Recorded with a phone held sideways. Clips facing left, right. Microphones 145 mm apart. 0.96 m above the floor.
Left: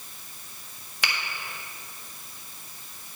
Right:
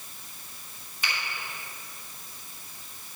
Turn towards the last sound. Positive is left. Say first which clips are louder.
# left 2 dB
turn(degrees=75)  # may be behind; listen again after turning